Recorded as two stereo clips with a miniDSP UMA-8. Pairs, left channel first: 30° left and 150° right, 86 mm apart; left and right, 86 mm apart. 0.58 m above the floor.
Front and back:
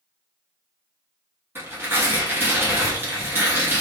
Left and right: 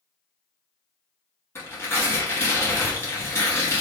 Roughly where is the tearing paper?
Behind left.